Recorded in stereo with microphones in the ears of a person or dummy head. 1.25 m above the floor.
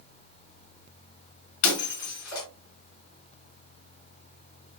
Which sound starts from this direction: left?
Breaking glass, at 1.6 s.